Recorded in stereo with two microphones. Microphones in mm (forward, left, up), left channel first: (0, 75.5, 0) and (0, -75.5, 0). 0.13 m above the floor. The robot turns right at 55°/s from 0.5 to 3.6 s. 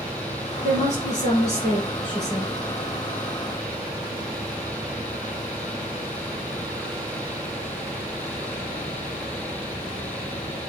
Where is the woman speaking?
60° left, 2.5 m; by 2.6 s 165° left, 2.5 m.